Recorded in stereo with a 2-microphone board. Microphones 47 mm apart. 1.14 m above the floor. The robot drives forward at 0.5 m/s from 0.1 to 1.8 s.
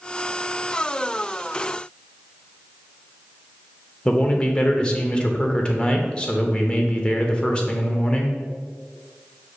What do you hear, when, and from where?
4.0 s a man speaking: 20° left (ahead or behind), 0.5 m